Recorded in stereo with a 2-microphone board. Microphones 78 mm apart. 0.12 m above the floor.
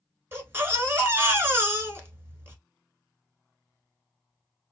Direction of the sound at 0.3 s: 30° right (ahead or behind).